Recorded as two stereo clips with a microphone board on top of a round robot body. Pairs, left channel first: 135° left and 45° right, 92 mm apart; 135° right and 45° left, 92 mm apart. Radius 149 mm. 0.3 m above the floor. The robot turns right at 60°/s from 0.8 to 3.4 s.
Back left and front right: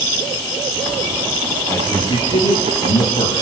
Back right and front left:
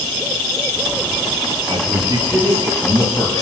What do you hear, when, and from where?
1.7 s a man speaking: 70° left, 8.5 m; by 3.4 s 175° left, 8.5 m